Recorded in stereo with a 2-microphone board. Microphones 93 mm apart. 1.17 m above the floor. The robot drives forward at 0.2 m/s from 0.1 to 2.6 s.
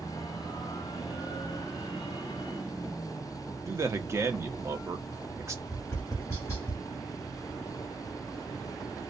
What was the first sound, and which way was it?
A man speaking, 30° right (ahead or behind).